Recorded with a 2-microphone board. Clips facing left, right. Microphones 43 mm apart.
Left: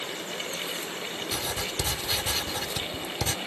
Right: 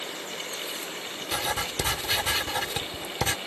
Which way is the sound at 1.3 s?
35° right (ahead or behind).